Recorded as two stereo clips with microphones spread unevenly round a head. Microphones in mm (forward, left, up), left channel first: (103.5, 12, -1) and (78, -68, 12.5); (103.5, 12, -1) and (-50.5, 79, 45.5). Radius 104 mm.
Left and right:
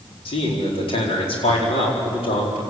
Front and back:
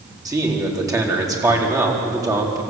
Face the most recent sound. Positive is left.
turn(degrees=85)